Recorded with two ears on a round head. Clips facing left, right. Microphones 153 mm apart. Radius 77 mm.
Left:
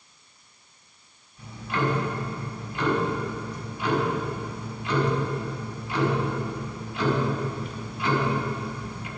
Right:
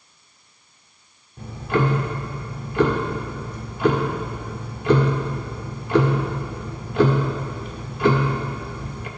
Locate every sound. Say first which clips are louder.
1.4 s ticking: right 6 dB; 45° right (ahead or behind), 1.6 m